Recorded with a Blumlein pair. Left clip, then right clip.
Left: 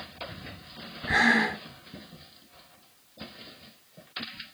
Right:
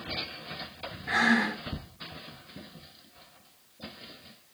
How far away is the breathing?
About 4 m.